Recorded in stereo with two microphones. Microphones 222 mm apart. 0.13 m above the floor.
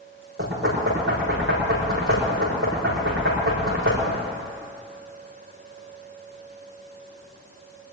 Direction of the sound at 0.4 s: 70° right (ahead or behind).